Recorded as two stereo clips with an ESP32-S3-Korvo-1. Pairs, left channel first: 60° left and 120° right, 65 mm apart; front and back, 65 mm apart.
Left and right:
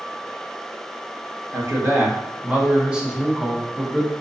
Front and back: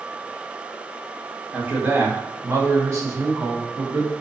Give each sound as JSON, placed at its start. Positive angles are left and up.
{"t": 1.5, "sound": "a man speaking", "azimuth_deg": -125, "distance_m": 0.9}